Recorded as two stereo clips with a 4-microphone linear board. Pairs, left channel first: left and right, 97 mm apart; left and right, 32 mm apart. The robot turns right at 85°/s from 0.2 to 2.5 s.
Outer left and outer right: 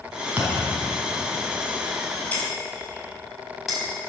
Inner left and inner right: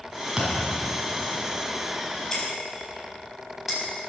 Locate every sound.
0.4 s a thud: 160° right, 4.5 m; by 0.7 s 130° right, 4.5 m
2.3 s breaking glass: 15° left (ahead or behind), 5 m; by 3.8 s centre (ahead or behind), 5 m